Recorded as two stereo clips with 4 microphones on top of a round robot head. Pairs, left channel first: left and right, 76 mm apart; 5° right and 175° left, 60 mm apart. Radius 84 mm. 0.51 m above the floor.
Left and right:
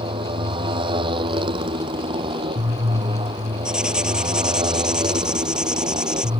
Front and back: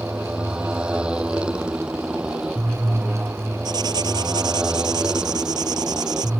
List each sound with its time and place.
0.0 s a motorcycle: 105° right
3.6 s writing: 170° right